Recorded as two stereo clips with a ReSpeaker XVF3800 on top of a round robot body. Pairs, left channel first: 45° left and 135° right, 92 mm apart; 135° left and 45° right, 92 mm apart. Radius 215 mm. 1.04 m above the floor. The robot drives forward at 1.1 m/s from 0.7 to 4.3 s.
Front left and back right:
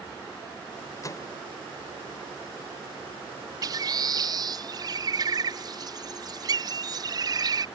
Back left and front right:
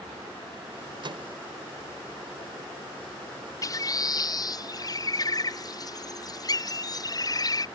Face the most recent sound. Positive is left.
turn(degrees=180)